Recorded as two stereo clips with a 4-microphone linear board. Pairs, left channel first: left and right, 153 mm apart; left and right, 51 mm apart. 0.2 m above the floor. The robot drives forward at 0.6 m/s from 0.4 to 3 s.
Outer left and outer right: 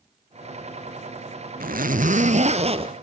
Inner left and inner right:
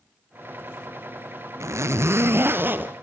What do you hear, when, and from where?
1.6 s a zipper: 70° right (ahead or behind), 0.9 m; by 2.9 s 40° right (ahead or behind), 1.3 m